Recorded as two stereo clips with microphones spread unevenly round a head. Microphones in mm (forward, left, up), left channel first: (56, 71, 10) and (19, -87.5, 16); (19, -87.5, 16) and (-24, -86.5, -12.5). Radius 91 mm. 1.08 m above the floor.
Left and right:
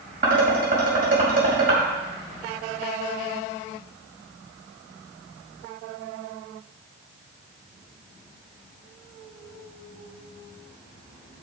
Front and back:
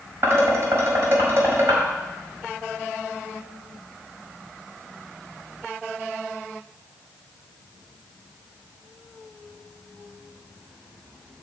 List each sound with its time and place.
0.2 s dishes clattering: 150° right, 4.5 m